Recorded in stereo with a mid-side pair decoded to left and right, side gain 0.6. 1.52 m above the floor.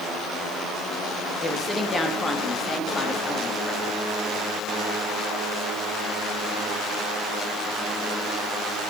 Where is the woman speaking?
20° left, 2.5 m; by 4.0 s 30° left, 4 m.